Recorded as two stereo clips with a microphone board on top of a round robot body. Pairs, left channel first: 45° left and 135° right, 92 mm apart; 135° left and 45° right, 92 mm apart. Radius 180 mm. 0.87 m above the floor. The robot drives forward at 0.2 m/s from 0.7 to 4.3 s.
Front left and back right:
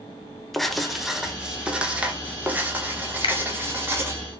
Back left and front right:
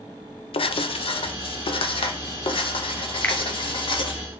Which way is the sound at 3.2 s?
65° left.